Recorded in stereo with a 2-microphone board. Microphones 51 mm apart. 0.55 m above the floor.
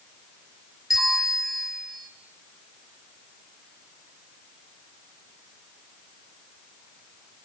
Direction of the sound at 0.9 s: 5° right (ahead or behind).